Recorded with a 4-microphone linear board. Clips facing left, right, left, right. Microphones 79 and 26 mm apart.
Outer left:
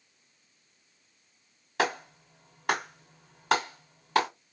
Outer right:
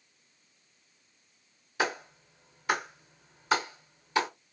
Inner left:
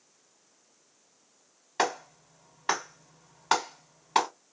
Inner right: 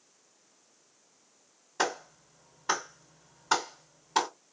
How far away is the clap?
About 2.5 m.